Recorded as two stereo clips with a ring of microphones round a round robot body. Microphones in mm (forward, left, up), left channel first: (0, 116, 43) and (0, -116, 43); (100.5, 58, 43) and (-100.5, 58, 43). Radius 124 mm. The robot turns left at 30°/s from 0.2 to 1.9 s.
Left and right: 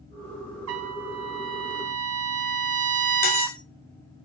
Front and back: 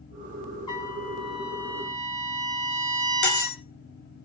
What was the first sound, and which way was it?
A trumpet, 70° right.